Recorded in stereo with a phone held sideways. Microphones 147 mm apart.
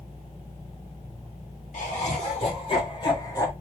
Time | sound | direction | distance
1.7 | laughter | 55° left (ahead or behind) | 2.5 m